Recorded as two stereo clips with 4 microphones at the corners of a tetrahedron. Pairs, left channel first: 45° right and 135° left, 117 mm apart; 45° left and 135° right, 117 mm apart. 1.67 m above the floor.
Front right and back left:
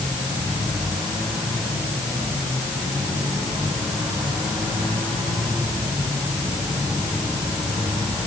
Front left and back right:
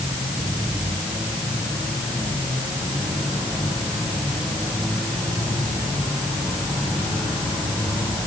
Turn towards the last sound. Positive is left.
No sound to turn to.